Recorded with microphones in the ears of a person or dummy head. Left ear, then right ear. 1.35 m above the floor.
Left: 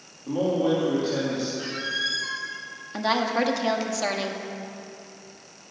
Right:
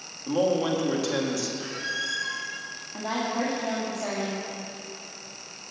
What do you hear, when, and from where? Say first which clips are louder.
0.3 s a man speaking: even; 55° right (ahead or behind), 2.5 m
1.6 s a squeak: left 3 dB; 15° left (ahead or behind), 1.3 m
2.9 s a woman speaking: left 6 dB; 70° left (ahead or behind), 1.9 m